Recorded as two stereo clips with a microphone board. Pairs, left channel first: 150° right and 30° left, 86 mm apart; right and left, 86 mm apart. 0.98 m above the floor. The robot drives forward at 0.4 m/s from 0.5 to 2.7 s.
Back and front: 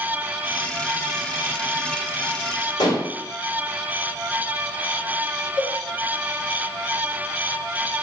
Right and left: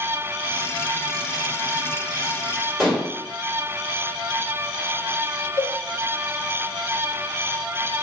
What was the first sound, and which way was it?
Dishes clattering, straight behind.